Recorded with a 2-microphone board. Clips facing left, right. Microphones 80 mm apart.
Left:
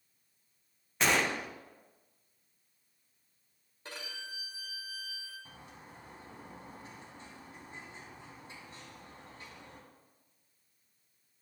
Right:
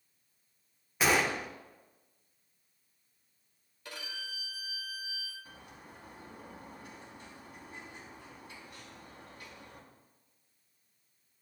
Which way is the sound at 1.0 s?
5° right (ahead or behind).